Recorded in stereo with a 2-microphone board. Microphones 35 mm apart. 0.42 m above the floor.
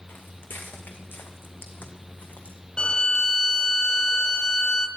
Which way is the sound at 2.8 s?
30° left (ahead or behind).